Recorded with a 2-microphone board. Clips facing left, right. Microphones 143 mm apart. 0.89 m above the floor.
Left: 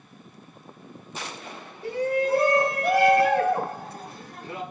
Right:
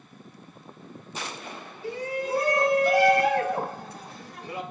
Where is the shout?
75° left (ahead or behind), 3.5 m; by 4.6 s 55° left (ahead or behind), 6.5 m.